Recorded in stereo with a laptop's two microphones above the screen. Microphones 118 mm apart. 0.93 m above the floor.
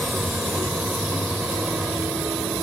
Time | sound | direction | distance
0.0 | a vehicle | 5° right (ahead or behind) | ?